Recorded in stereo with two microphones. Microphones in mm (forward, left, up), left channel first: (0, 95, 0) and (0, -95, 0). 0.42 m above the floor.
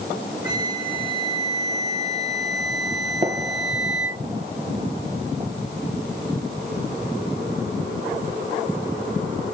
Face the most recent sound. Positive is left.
turn(degrees=-30)  # may be behind; listen again after turning